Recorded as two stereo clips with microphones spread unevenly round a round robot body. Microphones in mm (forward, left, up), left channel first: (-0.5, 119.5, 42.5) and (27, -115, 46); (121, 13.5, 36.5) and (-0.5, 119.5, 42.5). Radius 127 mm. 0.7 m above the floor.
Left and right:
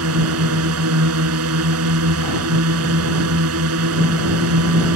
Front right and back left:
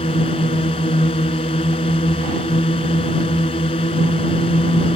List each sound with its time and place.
0.0 s a drone: 110° right